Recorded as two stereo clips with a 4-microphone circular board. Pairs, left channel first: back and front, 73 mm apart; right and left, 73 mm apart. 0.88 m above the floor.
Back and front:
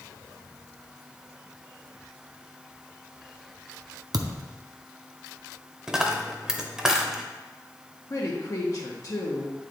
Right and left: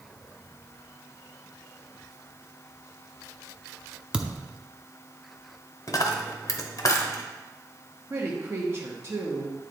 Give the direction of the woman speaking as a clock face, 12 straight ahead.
7 o'clock.